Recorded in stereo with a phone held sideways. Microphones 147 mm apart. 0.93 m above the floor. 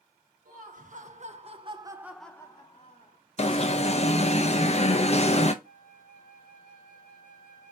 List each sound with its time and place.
0.5 s laughter: 65° right (ahead or behind), 1.7 m; by 3.2 s 55° left (ahead or behind), 1.1 m
3.4 s an alarm: 45° left (ahead or behind), 0.5 m
5.6 s a flute: 65° right (ahead or behind), 0.8 m